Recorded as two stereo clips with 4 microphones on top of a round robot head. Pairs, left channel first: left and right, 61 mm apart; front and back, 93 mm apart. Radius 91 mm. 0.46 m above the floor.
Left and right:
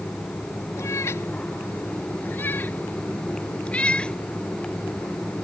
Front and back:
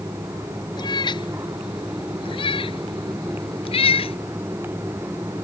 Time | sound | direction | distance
0.8 | a cat meowing | 35° left | ?